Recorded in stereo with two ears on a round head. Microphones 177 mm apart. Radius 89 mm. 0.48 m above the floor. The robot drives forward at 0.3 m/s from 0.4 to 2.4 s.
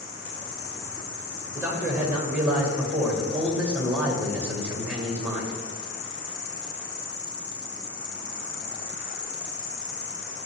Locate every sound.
0.0 s an insect: 70° left (ahead or behind), 1.8 m; by 10.5 s 75° left (ahead or behind), 1.7 m
1.5 s a man speaking: 10° right (ahead or behind), 2.0 m